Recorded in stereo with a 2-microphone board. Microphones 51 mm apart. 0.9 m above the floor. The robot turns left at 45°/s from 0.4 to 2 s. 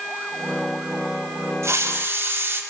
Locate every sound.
1.6 s a hiss: 65° right (ahead or behind), 1.8 m; by 2.6 s 50° right (ahead or behind), 1.8 m